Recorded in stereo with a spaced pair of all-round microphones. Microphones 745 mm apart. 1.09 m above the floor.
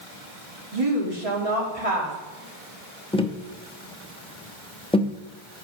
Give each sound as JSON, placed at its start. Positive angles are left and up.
{"t": 0.7, "sound": "a woman speaking", "side_deg": -45, "distance_m": 2.5}
{"t": 3.1, "sound": "tapping", "side_deg": 10, "distance_m": 0.6}